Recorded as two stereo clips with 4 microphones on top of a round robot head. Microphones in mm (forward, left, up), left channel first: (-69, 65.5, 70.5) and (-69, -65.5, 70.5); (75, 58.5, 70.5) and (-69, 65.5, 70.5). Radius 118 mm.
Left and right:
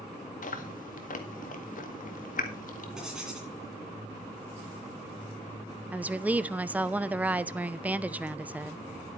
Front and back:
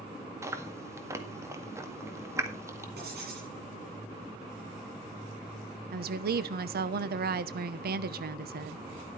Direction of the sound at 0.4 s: 105° left.